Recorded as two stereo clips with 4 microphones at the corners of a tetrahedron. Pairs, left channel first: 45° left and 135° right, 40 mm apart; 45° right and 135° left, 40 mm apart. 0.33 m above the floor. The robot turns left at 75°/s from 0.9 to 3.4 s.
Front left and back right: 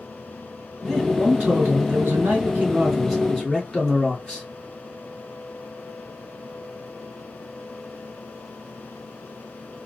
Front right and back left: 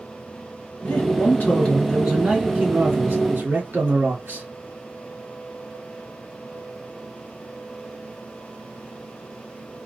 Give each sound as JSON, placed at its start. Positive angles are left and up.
{"t": 0.8, "sound": "a man speaking", "azimuth_deg": -55, "distance_m": 3.0}